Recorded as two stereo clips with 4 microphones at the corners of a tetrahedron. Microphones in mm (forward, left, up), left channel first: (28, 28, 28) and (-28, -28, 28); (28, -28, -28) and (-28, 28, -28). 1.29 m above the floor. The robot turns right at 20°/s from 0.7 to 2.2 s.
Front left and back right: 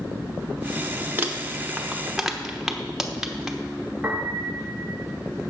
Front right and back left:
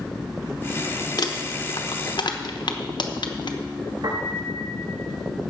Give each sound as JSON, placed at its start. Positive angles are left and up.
{"t": 1.2, "sound": "crumpling", "azimuth_deg": -70, "distance_m": 1.0}
{"t": 4.0, "sound": "a piano", "azimuth_deg": 150, "distance_m": 3.0}